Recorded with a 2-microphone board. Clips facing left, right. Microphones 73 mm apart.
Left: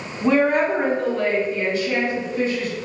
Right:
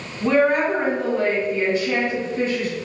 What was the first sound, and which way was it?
A woman speaking, 15° left (ahead or behind).